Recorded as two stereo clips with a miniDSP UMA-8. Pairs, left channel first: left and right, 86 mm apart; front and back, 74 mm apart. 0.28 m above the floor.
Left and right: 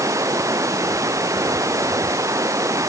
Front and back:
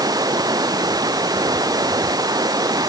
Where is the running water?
145° right.